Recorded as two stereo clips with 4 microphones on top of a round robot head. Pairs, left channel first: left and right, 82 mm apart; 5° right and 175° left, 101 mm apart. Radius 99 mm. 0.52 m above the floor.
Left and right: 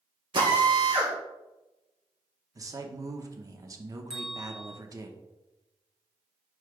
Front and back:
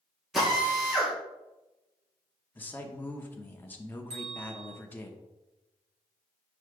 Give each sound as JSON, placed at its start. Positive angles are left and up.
{"t": 0.3, "sound": "a drill", "azimuth_deg": -100, "distance_m": 2.5}
{"t": 2.5, "sound": "a man speaking", "azimuth_deg": -70, "distance_m": 1.0}
{"t": 4.1, "sound": "a bell", "azimuth_deg": -175, "distance_m": 3.0}